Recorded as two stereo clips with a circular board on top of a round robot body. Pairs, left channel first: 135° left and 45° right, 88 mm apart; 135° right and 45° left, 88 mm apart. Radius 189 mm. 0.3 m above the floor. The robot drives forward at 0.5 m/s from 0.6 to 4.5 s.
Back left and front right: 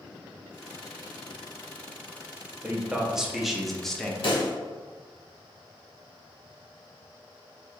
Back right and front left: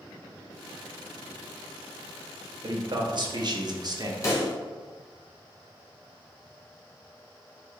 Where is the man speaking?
30° left, 1.7 m; by 4.1 s 60° left, 1.3 m.